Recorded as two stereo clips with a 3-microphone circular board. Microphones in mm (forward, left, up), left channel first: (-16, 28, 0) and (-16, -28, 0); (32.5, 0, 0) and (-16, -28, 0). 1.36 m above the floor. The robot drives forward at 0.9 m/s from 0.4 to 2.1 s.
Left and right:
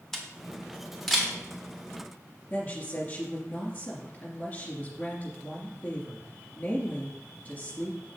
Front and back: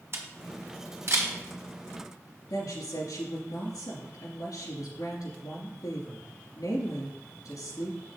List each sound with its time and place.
0.1 s a camera shutter: 170° left, 1.3 m; by 1.3 s 175° left, 2 m
2.5 s a woman speaking: 35° left, 2.5 m